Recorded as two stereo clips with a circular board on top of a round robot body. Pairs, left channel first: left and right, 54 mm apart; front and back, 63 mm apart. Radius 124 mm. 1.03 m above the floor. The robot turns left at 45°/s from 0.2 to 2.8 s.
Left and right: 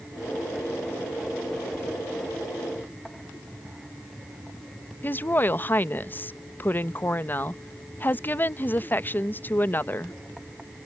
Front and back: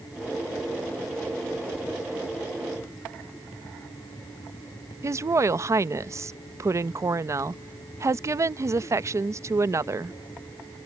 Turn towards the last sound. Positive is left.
turn(degrees=140)